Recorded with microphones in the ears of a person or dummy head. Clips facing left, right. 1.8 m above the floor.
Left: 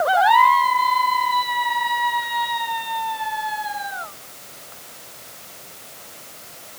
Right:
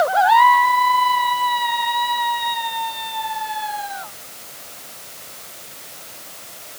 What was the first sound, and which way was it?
Only background noise.